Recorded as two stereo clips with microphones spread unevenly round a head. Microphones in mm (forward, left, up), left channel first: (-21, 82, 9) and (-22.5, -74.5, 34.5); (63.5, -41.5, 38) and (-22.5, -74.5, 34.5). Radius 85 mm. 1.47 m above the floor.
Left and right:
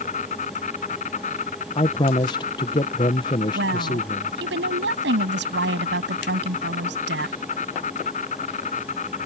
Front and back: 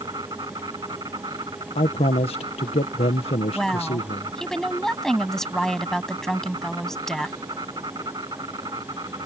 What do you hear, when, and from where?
0.0 s an insect: 135° left
1.8 s a man speaking: 30° left
3.5 s a woman speaking: 65° right